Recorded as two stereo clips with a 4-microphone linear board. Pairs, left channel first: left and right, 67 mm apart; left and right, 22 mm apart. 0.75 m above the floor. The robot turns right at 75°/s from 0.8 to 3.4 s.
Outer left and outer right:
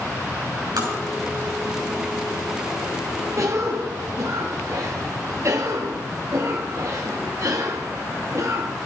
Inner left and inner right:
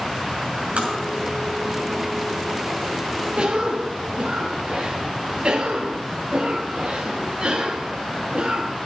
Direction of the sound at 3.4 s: 55° right (ahead or behind).